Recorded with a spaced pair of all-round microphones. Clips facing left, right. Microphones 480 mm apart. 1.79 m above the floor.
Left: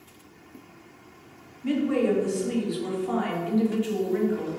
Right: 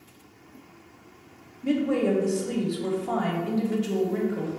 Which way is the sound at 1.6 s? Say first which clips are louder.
Even; 60° right (ahead or behind).